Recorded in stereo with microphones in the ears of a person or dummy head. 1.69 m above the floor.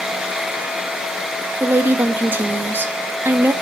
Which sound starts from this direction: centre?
A woman speaking, at 1.6 s.